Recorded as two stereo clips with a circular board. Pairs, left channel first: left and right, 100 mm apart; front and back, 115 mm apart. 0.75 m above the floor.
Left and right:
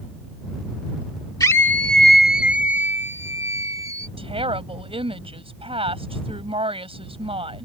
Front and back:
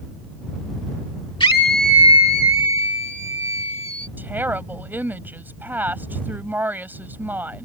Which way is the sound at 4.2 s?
105° right.